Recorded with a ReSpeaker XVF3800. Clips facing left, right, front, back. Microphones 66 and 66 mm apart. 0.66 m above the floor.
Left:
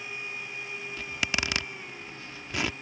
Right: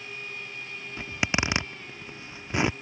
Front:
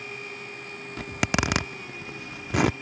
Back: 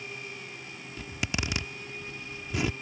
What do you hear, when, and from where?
1.0 s a zipper: 25° right